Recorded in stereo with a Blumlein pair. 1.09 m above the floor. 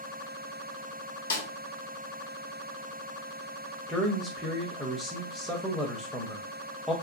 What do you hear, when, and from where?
1.3 s a snare drum: 65° left, 0.8 m
3.9 s a man speaking: straight ahead, 0.6 m